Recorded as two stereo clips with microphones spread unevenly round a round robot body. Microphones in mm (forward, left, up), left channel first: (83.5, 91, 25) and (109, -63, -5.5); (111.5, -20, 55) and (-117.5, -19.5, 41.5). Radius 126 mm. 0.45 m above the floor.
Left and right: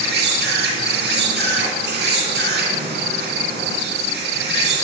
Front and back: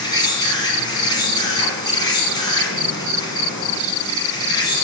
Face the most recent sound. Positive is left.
turn(degrees=-75)